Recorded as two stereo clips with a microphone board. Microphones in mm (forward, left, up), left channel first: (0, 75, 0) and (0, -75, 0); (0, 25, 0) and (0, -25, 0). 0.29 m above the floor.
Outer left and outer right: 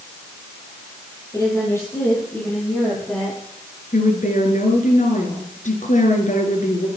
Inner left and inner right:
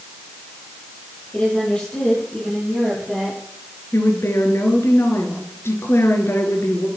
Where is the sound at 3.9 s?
65° left (ahead or behind), 4.5 m.